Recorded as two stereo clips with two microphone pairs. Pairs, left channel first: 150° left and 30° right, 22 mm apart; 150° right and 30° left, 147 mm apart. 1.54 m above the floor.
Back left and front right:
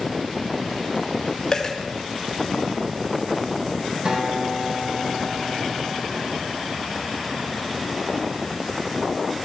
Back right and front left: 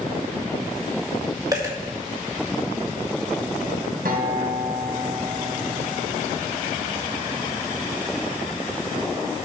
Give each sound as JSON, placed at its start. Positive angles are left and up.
{"t": 1.5, "sound": "a dropped coin", "azimuth_deg": 85, "distance_m": 1.8}
{"t": 4.0, "sound": "a guitar", "azimuth_deg": 15, "distance_m": 1.7}